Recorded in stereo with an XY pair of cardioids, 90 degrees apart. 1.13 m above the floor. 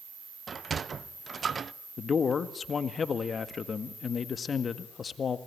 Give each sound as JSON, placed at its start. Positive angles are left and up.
{"t": 0.5, "sound": "a sliding door", "azimuth_deg": -50, "distance_m": 0.6}
{"t": 2.0, "sound": "a man speaking", "azimuth_deg": 45, "distance_m": 1.8}